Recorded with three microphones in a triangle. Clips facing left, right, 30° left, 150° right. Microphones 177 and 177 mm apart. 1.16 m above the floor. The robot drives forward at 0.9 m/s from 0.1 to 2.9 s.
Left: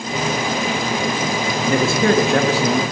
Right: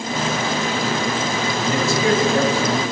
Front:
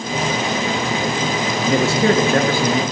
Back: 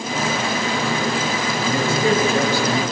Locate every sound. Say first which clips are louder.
1.6 s a man speaking: left 3 dB, front 3 dB; 45° left, 1.8 m; by 2.8 s 80° left, 1.3 m